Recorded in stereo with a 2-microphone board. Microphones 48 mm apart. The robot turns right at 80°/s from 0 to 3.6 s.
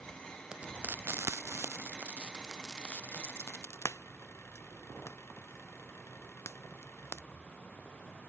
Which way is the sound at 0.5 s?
15° right (ahead or behind).